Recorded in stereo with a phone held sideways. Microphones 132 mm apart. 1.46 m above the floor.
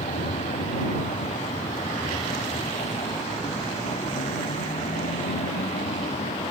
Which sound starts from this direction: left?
A vehicle, at 0.0 s.